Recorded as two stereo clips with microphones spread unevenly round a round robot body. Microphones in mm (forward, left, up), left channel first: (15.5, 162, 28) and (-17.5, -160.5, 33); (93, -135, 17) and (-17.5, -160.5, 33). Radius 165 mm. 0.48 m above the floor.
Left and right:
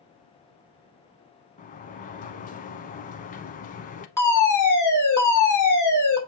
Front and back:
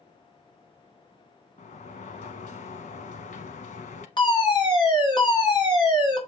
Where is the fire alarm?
5° left, 3 m.